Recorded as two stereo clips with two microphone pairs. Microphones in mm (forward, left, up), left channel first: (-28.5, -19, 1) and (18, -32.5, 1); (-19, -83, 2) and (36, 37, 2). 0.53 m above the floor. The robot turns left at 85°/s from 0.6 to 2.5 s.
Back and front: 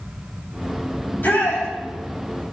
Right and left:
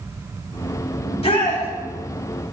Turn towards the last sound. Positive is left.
turn(degrees=105)